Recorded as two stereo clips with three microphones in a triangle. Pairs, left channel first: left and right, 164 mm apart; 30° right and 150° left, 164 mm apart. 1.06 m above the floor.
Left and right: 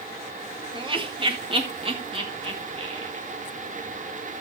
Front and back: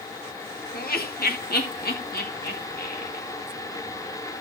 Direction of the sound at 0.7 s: 35° right.